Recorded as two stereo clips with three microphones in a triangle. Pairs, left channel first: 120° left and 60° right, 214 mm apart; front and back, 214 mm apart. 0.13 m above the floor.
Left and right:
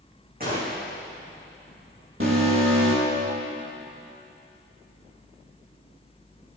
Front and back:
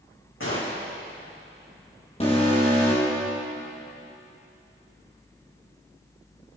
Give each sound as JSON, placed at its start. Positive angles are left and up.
{"t": 0.4, "sound": "a gunshot", "azimuth_deg": -15, "distance_m": 4.5}
{"t": 2.2, "sound": "an alarm", "azimuth_deg": -55, "distance_m": 5.5}